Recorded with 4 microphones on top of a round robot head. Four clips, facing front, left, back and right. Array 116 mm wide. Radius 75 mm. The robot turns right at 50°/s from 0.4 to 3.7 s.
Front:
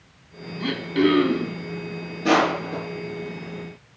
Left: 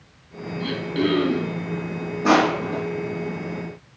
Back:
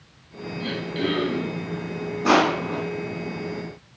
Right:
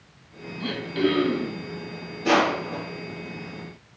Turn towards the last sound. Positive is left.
turn(degrees=-160)